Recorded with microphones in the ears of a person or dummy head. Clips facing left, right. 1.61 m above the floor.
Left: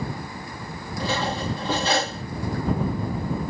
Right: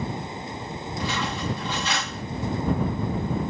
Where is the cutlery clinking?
35° left (ahead or behind).